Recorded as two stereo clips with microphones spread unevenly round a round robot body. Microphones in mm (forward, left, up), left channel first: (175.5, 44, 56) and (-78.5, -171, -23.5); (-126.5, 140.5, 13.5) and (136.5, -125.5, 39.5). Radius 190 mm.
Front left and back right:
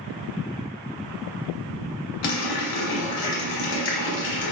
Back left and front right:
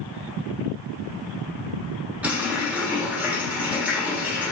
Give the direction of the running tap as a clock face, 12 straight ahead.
11 o'clock.